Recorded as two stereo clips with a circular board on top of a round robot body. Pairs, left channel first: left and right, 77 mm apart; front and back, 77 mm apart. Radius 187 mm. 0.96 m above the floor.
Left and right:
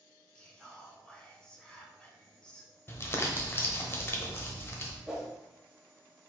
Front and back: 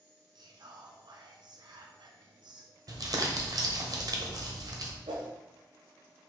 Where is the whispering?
170° left, 1.1 m.